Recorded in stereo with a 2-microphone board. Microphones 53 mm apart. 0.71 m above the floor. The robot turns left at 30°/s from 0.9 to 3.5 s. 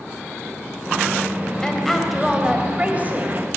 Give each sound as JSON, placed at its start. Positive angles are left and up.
{"t": 1.6, "sound": "a woman speaking", "azimuth_deg": 10, "distance_m": 3.5}